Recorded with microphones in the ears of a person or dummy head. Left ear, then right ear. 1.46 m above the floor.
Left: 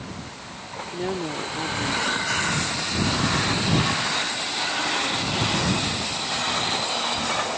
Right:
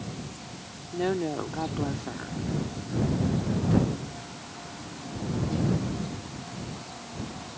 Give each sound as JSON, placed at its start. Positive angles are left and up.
{"t": 0.9, "sound": "a woman speaking", "side_deg": -10}